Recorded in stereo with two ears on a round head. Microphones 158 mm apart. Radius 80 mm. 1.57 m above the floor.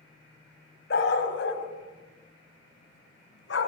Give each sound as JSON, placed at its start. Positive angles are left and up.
{"t": 0.9, "sound": "a dog barking", "side_deg": 60, "distance_m": 4.0}